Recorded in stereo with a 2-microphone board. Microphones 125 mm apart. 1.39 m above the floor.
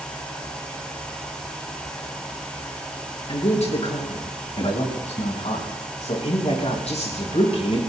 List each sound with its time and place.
3.3 s a man speaking: 60° left (ahead or behind), 5 m